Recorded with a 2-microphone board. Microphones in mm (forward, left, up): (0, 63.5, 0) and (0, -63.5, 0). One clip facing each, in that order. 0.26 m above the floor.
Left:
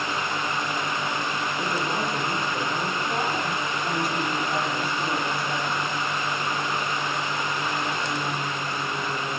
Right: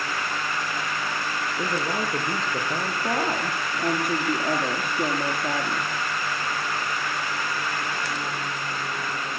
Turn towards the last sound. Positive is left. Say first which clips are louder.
# right 1 dB
turn(degrees=-55)  # may be behind; listen again after turning